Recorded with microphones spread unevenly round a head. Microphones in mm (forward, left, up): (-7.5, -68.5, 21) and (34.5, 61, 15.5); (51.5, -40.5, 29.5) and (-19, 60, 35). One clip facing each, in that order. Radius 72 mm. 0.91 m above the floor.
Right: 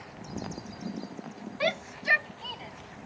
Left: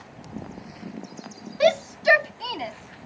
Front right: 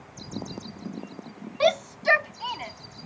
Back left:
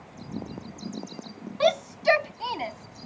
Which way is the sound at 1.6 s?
30° left.